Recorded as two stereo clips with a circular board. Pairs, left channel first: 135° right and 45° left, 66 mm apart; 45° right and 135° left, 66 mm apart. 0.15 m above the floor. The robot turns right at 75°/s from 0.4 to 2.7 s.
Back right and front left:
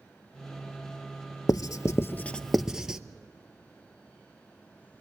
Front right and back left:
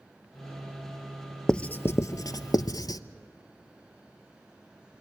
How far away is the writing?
About 0.8 m.